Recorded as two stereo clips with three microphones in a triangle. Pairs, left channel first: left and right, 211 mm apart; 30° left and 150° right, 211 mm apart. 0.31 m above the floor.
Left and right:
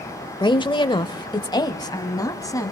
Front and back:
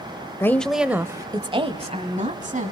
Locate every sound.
0.4 s a woman speaking: 85° left, 0.9 m; by 2.7 s 165° left, 2 m